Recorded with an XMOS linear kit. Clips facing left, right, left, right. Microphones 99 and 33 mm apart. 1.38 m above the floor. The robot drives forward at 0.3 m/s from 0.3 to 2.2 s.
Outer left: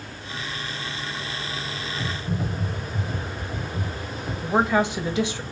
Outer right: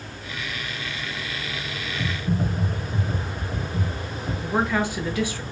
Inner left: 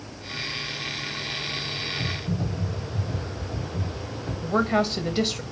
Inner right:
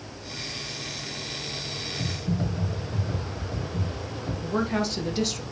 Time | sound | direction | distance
2.0 | typing on a keyboard | 35° right (ahead or behind) | 1.8 m
4.4 | a woman speaking | 20° left (ahead or behind) | 0.8 m